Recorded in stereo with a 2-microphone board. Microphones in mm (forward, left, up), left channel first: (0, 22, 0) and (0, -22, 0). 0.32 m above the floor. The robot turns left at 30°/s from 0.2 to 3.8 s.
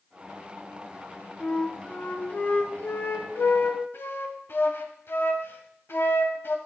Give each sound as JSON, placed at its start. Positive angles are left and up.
{"t": 1.4, "sound": "a flute", "azimuth_deg": 160, "distance_m": 1.0}